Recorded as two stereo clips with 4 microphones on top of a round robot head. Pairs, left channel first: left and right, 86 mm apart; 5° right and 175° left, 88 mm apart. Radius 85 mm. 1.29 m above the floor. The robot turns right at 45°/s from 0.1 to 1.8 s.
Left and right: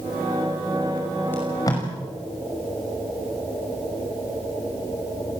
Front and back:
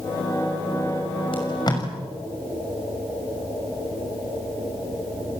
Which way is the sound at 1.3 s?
20° left.